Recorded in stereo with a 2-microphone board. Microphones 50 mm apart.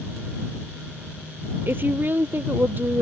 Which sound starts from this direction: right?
A woman speaking, at 1.7 s.